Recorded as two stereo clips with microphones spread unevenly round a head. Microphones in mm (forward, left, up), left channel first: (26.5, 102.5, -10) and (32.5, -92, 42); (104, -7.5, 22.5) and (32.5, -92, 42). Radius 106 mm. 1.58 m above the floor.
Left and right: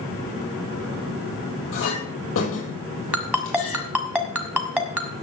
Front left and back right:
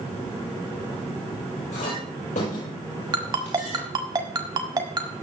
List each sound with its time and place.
1.7 s a clink: 75° left, 6.5 m
3.1 s a ringtone: 150° right, 1.4 m